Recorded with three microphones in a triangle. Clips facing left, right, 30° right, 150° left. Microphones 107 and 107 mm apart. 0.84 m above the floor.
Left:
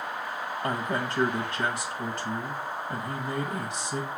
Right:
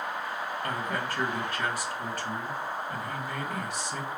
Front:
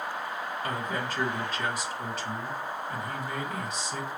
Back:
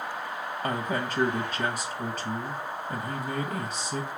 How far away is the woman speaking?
About 1.1 m.